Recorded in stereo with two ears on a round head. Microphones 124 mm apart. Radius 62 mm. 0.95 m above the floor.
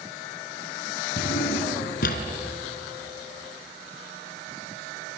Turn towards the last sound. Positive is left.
turn(degrees=70)  # may be behind; listen again after turning